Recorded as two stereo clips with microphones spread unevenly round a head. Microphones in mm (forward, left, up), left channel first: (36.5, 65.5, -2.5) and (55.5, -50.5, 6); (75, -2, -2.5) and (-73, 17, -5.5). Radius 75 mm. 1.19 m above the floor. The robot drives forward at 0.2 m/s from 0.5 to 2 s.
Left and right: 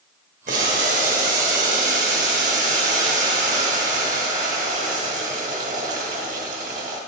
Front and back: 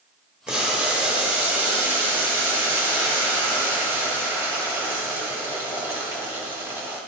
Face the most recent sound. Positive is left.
turn(degrees=-110)